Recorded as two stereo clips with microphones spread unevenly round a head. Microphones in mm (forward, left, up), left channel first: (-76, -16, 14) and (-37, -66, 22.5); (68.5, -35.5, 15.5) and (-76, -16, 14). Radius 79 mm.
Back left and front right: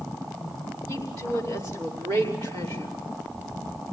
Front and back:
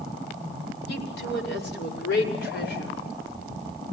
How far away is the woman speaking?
About 5 m.